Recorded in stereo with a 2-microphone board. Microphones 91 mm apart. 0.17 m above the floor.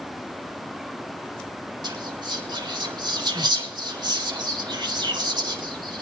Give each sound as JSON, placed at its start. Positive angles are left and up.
{"t": 1.8, "sound": "whispering", "side_deg": -50, "distance_m": 2.0}